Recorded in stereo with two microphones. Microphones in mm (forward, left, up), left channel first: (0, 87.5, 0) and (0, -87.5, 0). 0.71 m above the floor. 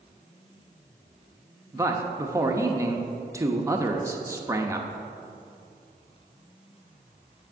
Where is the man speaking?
15° right (ahead or behind), 0.7 m.